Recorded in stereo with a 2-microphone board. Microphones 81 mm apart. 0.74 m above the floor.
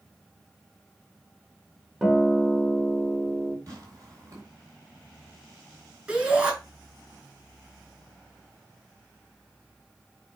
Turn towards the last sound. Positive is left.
turn(degrees=-20)  # may be behind; listen again after turning